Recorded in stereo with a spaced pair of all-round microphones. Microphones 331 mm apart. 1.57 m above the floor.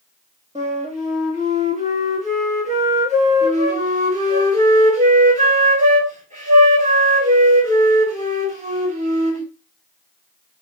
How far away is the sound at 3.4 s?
About 4 m.